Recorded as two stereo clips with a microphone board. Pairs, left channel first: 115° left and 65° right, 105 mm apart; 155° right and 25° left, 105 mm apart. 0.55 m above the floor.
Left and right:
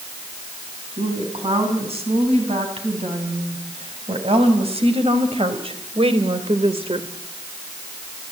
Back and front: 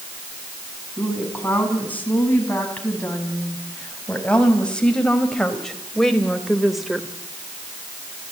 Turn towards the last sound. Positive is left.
turn(degrees=-60)